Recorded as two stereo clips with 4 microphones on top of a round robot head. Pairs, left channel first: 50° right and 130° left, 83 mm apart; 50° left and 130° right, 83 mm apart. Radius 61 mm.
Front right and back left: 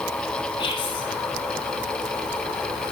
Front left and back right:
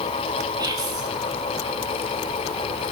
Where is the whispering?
85° right, 4 m.